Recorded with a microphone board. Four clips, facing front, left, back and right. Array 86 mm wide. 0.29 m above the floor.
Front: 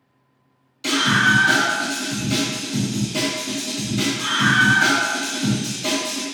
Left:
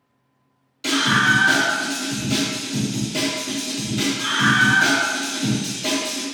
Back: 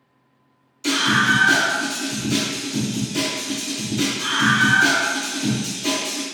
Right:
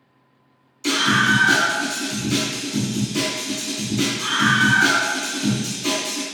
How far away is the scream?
About 1.8 m.